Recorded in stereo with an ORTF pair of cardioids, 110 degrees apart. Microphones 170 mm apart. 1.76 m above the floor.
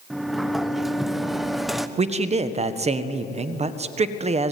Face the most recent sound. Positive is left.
turn(degrees=-45)